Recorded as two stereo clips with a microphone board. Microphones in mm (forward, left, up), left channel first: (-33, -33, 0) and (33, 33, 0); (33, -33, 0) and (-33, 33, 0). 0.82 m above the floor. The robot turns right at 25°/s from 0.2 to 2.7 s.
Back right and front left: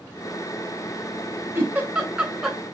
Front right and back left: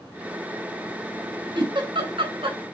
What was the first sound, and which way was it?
A giggle, 105° left.